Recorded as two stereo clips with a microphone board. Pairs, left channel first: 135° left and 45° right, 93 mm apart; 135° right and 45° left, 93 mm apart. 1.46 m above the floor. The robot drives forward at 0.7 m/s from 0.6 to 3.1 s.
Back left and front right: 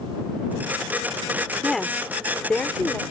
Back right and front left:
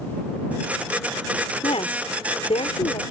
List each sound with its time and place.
1.6 s a woman speaking: 140° right; by 3.0 s 145° right